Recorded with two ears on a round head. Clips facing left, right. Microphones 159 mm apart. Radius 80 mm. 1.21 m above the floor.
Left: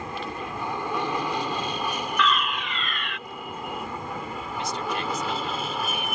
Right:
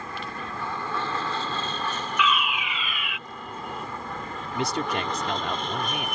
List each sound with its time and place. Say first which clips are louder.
0.0 s an aircraft: left 3 dB; 15° left (ahead or behind); by 6.2 s 5° left (ahead or behind)
2.2 s a fire alarm: even; 5° right (ahead or behind)
4.5 s a man speaking: right 3 dB; 55° right (ahead or behind)